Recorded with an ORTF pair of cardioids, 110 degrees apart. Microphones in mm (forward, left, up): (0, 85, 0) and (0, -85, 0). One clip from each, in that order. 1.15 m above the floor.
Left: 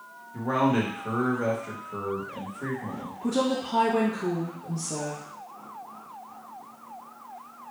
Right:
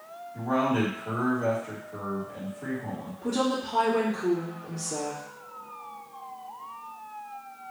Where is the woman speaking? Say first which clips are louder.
Left 1 dB; 70° left, 1.3 m.